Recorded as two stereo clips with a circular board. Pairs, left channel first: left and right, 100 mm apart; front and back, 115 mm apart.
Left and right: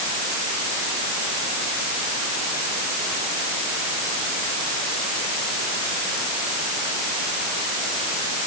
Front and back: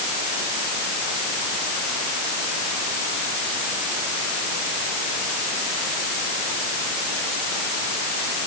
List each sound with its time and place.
Only background noise.